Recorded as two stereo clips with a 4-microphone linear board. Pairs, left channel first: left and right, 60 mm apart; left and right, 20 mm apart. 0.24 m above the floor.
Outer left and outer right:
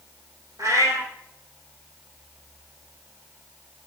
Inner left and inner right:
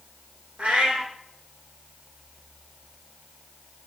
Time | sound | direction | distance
0.6 | a cat meowing | 80° right | 1.3 m